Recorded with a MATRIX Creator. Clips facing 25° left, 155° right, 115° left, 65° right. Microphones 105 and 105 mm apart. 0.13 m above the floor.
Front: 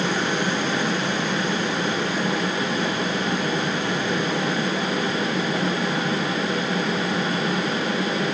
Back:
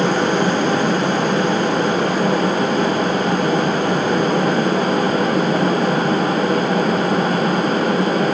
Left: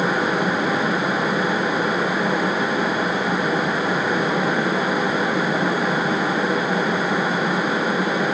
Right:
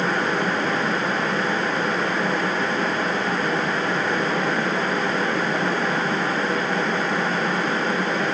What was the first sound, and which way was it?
Only background noise.